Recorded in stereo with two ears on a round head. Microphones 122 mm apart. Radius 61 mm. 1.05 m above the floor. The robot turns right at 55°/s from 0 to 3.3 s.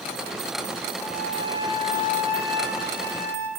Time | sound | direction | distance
1.0 | a flute | 5° right | 8 m